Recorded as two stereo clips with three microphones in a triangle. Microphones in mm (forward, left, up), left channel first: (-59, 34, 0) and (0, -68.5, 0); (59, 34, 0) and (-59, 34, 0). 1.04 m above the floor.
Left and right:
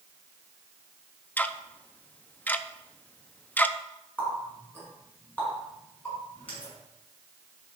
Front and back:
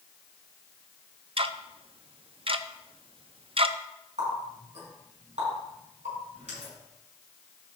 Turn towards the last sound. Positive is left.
turn(degrees=-165)